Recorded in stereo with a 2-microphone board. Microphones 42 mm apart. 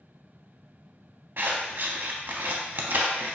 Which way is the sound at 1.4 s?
60° right (ahead or behind).